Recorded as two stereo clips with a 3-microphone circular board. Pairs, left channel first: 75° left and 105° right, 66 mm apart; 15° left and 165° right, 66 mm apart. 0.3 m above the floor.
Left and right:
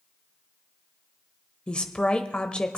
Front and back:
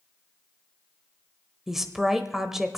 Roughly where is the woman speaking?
Behind left.